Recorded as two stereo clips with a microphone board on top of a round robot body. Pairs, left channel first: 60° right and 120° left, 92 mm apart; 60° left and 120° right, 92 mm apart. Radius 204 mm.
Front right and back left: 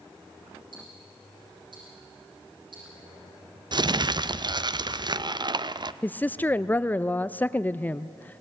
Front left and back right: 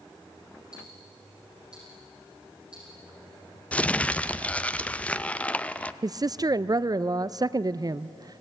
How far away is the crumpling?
About 0.7 m.